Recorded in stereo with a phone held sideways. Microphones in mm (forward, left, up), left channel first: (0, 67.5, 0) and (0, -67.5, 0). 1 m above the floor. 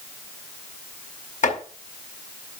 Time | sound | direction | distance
1.4 | chopping | 70° left (ahead or behind) | 6.5 m